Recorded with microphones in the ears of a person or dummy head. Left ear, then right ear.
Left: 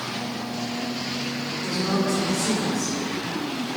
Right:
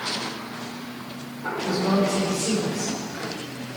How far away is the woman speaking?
About 5.5 m.